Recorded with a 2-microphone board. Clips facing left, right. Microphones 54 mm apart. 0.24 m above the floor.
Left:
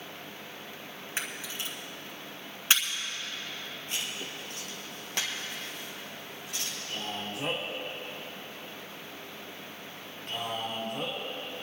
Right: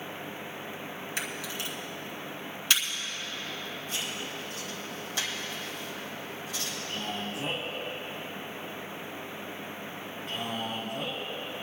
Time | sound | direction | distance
1.2 | a camera shutter | 30° left (ahead or behind) | 2 m
3.9 | writing | 65° left (ahead or behind) | 2.5 m
6.9 | a man speaking | 70° left (ahead or behind) | 4.5 m